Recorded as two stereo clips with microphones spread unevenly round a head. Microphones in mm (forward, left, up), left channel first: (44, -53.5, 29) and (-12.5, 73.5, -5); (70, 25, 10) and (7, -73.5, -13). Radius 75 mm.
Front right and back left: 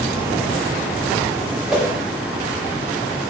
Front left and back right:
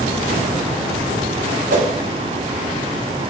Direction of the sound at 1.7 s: 160° right.